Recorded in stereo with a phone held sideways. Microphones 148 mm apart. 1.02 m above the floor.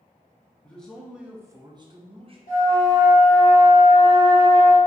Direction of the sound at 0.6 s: 10° left (ahead or behind).